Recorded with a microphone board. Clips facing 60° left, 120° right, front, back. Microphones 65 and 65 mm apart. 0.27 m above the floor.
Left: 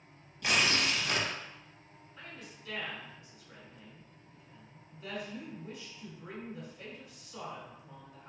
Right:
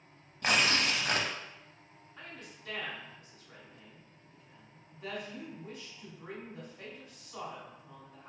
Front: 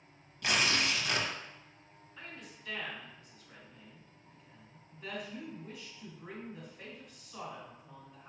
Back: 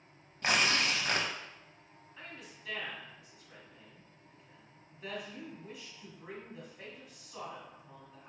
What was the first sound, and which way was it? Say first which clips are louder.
Tearing paper: right 1 dB, back 1 dB; 135° right.